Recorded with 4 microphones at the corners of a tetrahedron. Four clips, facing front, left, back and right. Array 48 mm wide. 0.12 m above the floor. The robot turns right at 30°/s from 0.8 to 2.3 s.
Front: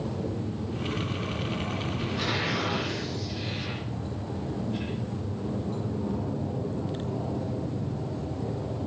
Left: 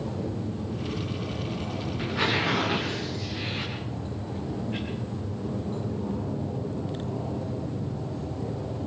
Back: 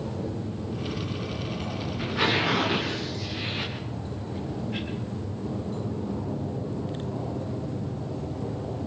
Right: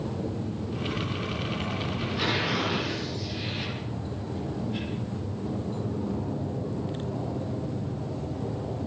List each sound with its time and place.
2.0 s tearing paper: 130° left, 7.5 m; by 4.8 s 140° left, 7.5 m